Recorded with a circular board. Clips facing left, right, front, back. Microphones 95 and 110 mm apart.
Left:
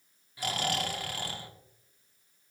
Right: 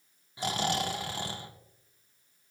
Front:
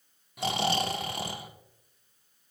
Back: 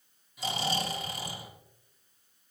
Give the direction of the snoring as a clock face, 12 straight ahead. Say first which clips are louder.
Right 2 dB, front 4 dB; 1 o'clock.